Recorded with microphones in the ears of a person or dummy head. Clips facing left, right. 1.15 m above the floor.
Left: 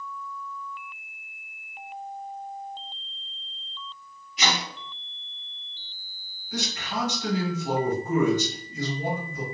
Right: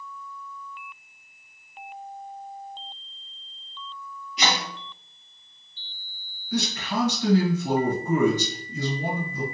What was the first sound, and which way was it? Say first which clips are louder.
Chopping: right 1 dB; 40° right (ahead or behind).